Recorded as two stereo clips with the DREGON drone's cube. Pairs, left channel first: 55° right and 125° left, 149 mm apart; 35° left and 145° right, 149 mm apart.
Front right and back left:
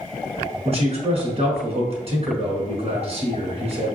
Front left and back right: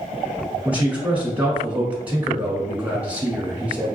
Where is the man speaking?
140° left, 1.4 m.